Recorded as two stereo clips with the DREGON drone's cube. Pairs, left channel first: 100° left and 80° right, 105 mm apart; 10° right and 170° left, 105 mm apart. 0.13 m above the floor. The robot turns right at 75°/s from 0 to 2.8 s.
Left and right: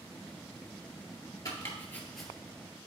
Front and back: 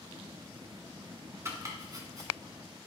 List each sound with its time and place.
1.4 s chopping: 130° left, 1.8 m; by 2.3 s 165° right, 1.8 m